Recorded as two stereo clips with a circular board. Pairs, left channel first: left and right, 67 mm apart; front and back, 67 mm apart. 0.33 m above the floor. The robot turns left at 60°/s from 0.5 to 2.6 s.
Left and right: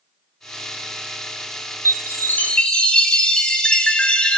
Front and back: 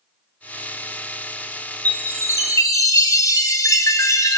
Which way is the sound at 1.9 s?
60° left.